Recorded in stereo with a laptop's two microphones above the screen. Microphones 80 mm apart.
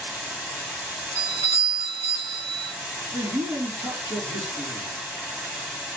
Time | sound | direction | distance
0.0 | running water | 20° right (ahead or behind) | 1.5 m
1.1 | a doorbell | 65° right (ahead or behind) | 2.5 m
3.1 | a man speaking | 70° right (ahead or behind) | 3.5 m